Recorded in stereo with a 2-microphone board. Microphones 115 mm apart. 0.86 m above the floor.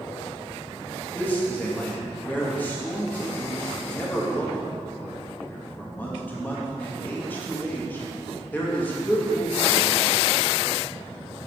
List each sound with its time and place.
1.1 s a man speaking: 15° left (ahead or behind), 1.1 m